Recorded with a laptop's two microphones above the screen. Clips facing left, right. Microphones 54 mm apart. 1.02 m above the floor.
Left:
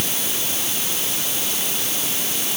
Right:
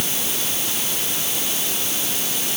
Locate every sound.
Only background noise.